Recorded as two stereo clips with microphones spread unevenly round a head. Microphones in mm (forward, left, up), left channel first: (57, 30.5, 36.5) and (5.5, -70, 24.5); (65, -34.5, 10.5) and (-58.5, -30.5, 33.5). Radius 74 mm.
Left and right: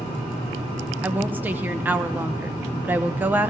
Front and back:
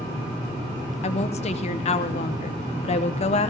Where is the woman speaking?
40° right, 0.8 m.